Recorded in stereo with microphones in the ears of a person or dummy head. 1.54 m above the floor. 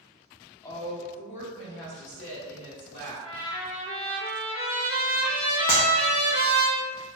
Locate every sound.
0.6 s a woman speaking: 20° left (ahead or behind), 0.7 m; by 3.1 s 55° left (ahead or behind), 1.8 m
3.2 s a trumpet: 65° left (ahead or behind), 1.4 m
5.7 s a clap: 25° left (ahead or behind), 0.7 m